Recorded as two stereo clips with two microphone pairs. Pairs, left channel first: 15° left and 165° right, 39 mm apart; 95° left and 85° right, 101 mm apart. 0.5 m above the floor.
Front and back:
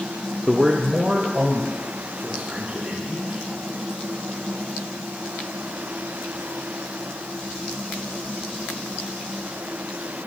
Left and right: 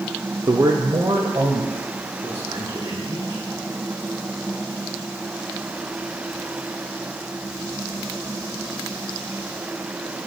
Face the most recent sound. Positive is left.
turn(degrees=-140)